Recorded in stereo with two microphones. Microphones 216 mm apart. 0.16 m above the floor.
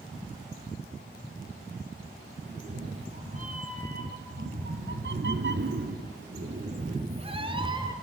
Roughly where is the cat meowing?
Right.